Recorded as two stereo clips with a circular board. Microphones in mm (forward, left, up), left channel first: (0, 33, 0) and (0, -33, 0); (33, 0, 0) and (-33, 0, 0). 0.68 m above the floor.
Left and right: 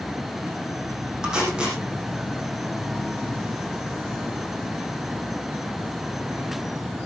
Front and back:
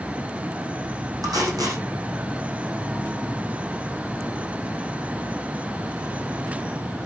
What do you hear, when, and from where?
1.2 s tape being pulled: 170° right, 7.5 m